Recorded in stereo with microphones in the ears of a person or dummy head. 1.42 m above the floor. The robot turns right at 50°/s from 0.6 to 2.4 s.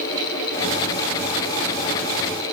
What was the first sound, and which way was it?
Only background noise.